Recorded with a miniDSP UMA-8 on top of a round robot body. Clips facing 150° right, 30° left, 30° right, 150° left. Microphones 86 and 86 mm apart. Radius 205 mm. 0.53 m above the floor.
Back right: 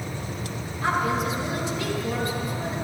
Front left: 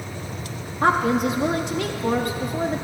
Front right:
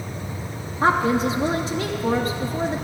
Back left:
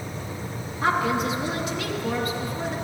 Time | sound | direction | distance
0.8 | a woman speaking | 20° left | 1.6 m